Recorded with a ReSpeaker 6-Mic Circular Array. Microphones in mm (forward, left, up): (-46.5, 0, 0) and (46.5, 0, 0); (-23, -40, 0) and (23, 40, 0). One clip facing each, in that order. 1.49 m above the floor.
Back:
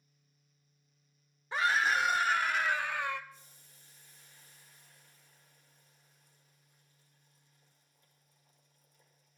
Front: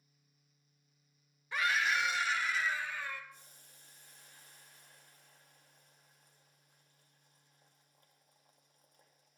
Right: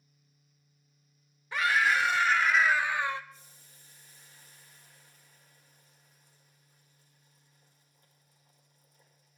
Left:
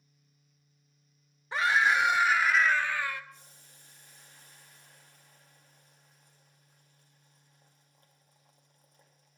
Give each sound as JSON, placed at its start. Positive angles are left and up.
{"t": 1.5, "sound": "a scream", "azimuth_deg": 120, "distance_m": 1.4}
{"t": 3.3, "sound": "boiling", "azimuth_deg": 30, "distance_m": 2.5}